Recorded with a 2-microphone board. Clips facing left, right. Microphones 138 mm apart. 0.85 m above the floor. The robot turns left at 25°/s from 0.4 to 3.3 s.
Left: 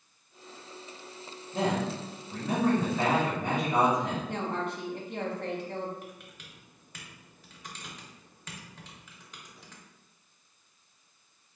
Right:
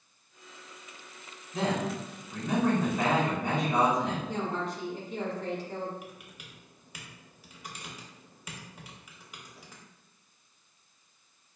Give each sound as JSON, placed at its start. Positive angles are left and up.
{"t": 1.5, "sound": "a man speaking", "azimuth_deg": 60, "distance_m": 1.3}
{"t": 4.3, "sound": "a woman speaking", "side_deg": 60, "distance_m": 0.9}
{"t": 6.0, "sound": "typing on a keyboard", "side_deg": -10, "distance_m": 0.8}